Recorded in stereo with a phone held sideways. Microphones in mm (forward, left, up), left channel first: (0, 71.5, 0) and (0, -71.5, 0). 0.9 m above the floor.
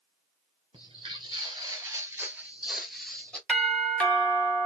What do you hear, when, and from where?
0.7 s footsteps: 35° right (ahead or behind), 1.2 m; by 3.4 s 5° left (ahead or behind), 1.1 m
3.5 s a doorbell: 10° left (ahead or behind), 0.8 m